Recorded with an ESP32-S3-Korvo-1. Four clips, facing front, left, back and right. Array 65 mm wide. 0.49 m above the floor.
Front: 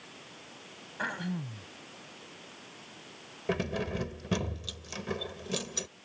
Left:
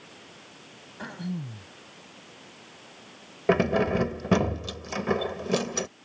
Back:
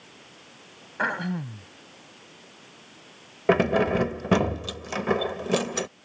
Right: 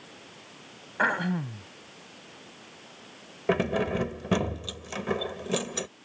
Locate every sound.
1.0 s throat clearing: 125° right
3.5 s keys jangling: 165° left